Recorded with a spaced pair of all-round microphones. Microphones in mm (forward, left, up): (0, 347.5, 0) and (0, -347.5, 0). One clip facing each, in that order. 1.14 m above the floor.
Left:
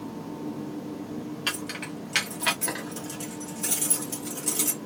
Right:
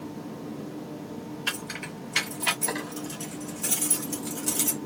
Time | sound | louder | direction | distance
1.5 | keys jangling | left 3 dB | 85° left | 2.0 m